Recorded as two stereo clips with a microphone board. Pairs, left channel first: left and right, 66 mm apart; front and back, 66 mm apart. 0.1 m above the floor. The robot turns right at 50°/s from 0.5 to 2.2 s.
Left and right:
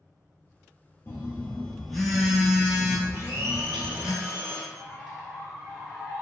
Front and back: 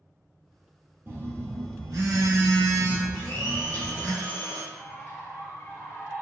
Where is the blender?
50° right, 1.3 m.